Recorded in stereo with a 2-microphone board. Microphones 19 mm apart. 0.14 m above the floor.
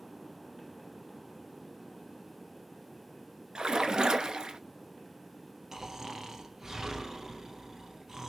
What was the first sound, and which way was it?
A splash, 55° right (ahead or behind).